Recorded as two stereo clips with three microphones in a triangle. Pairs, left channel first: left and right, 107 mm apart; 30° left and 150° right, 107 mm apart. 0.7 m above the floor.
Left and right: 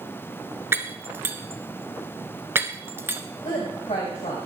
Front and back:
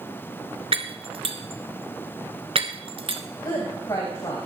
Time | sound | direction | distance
0.7 | breaking glass | 155° right | 1.2 m
3.4 | a woman speaking | 80° left | 3.5 m